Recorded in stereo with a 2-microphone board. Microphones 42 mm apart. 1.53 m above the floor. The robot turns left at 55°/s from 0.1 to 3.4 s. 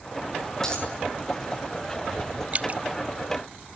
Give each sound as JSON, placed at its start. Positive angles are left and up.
{"t": 0.6, "sound": "a dropped coin", "side_deg": 15, "distance_m": 7.5}
{"t": 2.5, "sound": "dripping", "side_deg": -35, "distance_m": 0.5}